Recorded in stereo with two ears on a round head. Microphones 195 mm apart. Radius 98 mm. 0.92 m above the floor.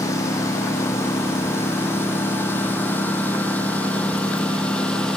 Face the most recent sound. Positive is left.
turn(degrees=5)  # may be behind; listen again after turning